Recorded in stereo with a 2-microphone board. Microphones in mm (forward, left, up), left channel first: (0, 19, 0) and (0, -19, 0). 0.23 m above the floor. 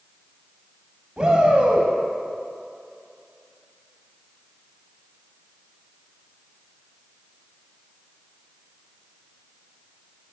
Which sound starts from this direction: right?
A shout, at 1.2 s.